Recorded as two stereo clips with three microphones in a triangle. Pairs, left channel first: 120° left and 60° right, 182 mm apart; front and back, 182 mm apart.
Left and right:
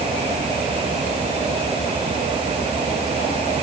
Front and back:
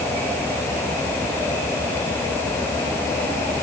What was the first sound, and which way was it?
Only background noise.